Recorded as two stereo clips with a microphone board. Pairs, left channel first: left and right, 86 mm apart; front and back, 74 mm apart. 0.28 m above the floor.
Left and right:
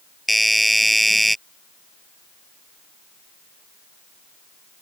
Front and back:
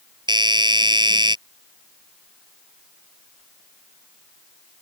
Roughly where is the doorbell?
Behind.